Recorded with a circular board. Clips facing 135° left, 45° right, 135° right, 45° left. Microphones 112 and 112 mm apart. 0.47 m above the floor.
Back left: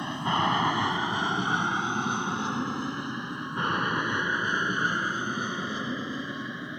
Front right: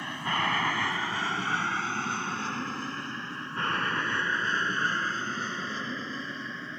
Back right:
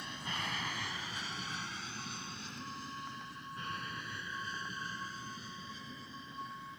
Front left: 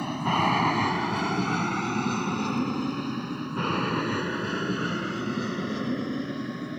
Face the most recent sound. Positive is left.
turn(degrees=60)